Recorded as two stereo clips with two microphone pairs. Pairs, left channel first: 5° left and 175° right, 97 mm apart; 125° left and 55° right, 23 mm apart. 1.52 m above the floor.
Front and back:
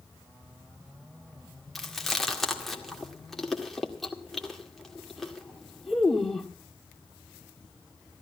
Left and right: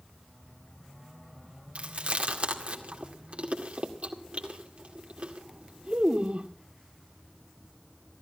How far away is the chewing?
About 1.9 m.